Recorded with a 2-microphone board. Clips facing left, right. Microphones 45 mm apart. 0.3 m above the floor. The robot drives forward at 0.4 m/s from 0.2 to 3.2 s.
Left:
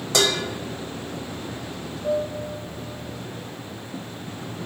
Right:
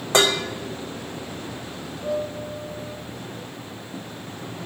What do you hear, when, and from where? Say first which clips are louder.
0.1 s dishes clattering: right 3 dB; 35° right (ahead or behind), 0.8 m
2.0 s a piano: left 2 dB; 20° right (ahead or behind), 3 m